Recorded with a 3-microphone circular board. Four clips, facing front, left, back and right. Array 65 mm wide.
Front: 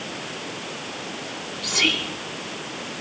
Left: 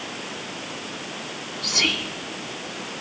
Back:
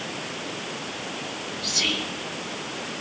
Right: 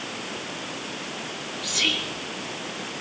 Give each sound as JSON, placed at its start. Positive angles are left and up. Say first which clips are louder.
{"t": 1.6, "sound": "whispering", "louder": "left 2 dB, front 6 dB", "azimuth_deg": 30, "distance_m": 2.0}